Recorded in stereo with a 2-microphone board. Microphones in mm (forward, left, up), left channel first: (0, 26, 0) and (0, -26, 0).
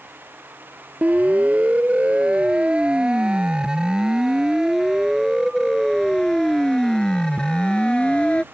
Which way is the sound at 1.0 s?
30° right (ahead or behind).